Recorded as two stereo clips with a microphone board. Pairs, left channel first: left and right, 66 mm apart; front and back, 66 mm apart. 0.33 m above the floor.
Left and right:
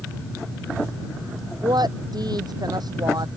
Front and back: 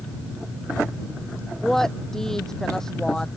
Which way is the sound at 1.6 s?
85° right.